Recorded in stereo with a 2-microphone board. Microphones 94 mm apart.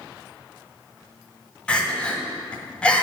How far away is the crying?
About 1.4 m.